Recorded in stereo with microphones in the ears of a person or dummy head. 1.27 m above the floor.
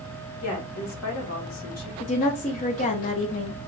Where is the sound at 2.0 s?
30° left (ahead or behind), 0.9 m.